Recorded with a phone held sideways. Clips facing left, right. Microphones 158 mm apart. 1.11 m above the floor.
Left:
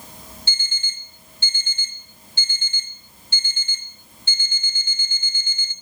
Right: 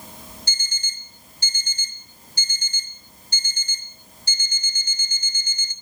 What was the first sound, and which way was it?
An alarm clock, 40° right (ahead or behind).